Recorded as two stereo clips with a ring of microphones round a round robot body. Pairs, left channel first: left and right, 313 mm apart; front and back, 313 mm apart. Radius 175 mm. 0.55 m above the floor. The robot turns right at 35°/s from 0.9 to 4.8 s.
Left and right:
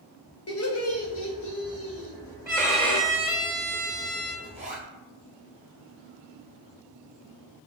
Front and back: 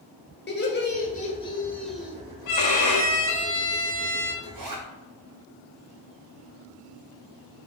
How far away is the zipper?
About 2 m.